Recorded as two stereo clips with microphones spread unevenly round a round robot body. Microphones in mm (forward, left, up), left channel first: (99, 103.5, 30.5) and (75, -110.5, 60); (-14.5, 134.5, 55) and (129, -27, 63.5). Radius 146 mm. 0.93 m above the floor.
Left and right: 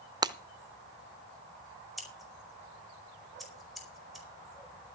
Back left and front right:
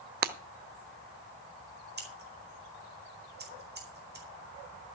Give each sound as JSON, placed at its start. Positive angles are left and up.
{"t": 0.2, "sound": "breaking glass", "azimuth_deg": -45, "distance_m": 0.7}
{"t": 2.0, "sound": "scissors", "azimuth_deg": -5, "distance_m": 4.5}